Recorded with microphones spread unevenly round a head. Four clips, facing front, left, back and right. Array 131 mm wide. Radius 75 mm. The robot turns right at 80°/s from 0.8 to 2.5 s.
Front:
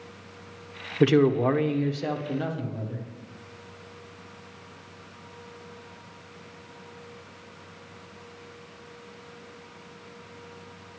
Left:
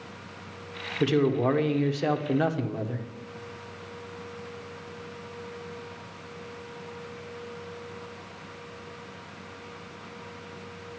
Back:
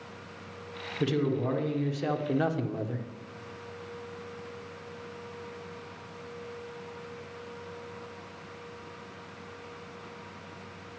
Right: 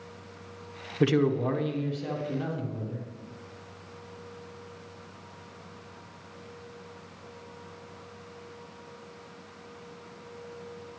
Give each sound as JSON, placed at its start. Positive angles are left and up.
{"t": 1.0, "sound": "a man speaking", "azimuth_deg": 5, "distance_m": 1.0}